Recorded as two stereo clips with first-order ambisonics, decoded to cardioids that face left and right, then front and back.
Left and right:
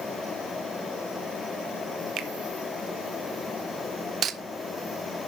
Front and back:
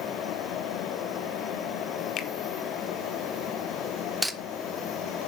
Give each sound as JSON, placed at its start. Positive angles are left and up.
{"t": 2.2, "sound": "a finger snap", "azimuth_deg": -40, "distance_m": 1.4}
{"t": 4.2, "sound": "cutlery clinking", "azimuth_deg": -85, "distance_m": 0.9}